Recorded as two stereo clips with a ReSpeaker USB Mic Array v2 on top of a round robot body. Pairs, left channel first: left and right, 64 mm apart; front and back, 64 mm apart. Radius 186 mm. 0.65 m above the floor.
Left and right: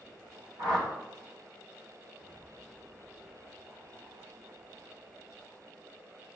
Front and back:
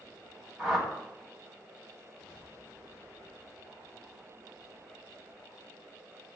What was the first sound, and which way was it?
A whoosh, 100° right.